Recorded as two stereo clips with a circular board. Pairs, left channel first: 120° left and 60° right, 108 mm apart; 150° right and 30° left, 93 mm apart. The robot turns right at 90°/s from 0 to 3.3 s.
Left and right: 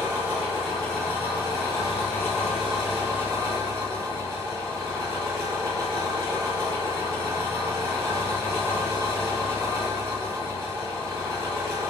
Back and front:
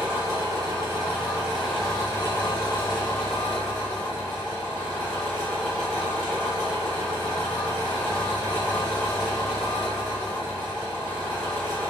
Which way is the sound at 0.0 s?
25° right.